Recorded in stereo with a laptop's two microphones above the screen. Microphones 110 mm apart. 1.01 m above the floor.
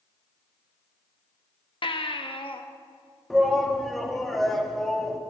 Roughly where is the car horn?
No car horn in this recording.